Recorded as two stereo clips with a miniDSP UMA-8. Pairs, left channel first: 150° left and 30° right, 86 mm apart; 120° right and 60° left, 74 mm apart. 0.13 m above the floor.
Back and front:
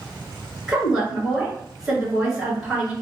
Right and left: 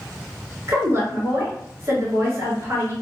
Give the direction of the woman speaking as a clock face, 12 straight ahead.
10 o'clock.